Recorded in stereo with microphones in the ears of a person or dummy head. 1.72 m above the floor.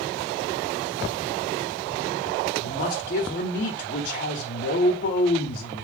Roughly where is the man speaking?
Left.